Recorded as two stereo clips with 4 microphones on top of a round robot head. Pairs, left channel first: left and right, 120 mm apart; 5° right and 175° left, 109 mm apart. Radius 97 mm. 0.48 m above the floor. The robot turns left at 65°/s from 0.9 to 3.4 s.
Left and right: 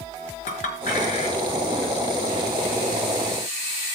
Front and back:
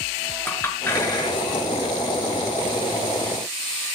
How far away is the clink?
About 5 m.